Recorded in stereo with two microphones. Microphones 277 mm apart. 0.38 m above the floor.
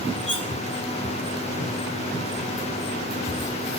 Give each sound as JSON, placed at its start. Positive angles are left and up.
{"t": 0.3, "sound": "cutlery clinking", "side_deg": -45, "distance_m": 0.7}